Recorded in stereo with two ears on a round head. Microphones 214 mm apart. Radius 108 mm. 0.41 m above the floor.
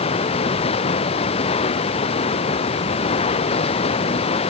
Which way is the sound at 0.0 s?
25° left (ahead or behind).